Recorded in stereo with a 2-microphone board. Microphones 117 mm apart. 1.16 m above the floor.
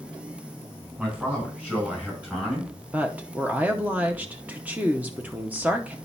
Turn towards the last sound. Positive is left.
turn(degrees=-15)  # may be behind; listen again after turning